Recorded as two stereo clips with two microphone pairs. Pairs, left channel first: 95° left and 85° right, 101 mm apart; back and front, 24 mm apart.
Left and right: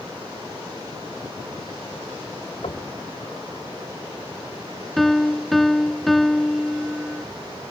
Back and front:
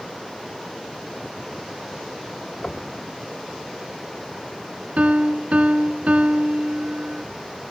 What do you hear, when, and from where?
2.6 s knocking: 125° left
5.0 s a piano: 10° left